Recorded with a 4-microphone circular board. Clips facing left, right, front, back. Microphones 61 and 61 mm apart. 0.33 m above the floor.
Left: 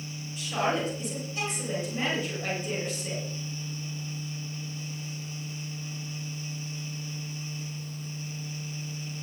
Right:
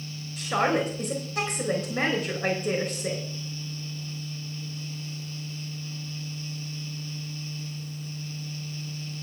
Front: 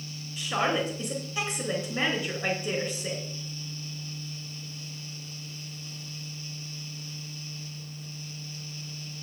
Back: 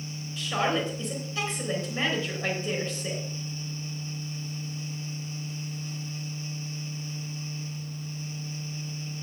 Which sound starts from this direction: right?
A woman speaking, at 0.4 s.